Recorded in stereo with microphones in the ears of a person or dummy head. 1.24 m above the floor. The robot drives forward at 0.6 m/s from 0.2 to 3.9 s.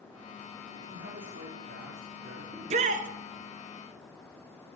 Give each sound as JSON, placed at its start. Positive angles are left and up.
{"t": 0.7, "sound": "a man speaking", "side_deg": -60, "distance_m": 3.5}
{"t": 2.5, "sound": "a shout", "side_deg": -35, "distance_m": 1.0}